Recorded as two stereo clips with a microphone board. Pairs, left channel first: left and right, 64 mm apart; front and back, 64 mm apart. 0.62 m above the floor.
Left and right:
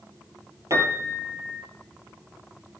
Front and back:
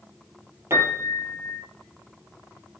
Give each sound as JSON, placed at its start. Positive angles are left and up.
{"t": 0.7, "sound": "a piano", "azimuth_deg": -130, "distance_m": 4.0}